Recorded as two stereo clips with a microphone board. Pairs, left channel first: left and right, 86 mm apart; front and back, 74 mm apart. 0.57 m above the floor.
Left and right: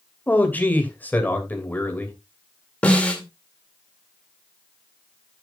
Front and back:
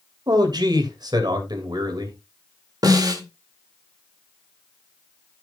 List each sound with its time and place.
0.3 s a man speaking: 160° left, 2.5 m
2.8 s a snare drum: 165° left, 2.5 m